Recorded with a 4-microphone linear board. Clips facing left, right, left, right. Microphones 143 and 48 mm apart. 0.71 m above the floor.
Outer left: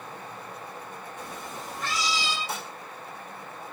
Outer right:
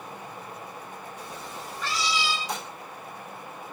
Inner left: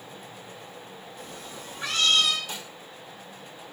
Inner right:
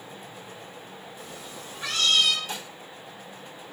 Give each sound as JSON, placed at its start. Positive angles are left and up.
{"t": 1.2, "sound": "a cat meowing", "side_deg": 50, "distance_m": 5.0}
{"t": 2.5, "sound": "dishes clattering", "side_deg": 5, "distance_m": 1.8}